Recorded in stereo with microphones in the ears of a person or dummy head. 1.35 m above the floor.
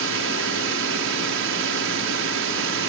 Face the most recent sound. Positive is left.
turn(degrees=-60)  # may be behind; listen again after turning